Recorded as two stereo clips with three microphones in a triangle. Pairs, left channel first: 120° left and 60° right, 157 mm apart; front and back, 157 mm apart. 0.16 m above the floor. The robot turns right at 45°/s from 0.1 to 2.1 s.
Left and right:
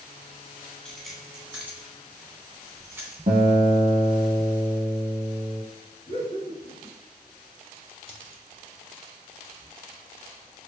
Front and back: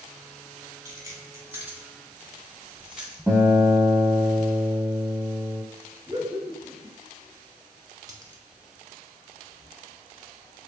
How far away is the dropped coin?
About 0.6 m.